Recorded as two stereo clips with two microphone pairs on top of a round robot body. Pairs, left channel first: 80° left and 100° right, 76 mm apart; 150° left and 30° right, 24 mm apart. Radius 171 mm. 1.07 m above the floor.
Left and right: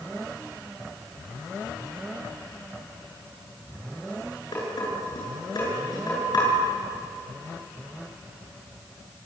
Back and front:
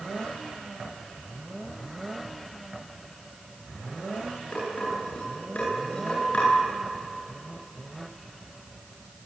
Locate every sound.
4.5 s dishes clattering: 110° left, 9.5 m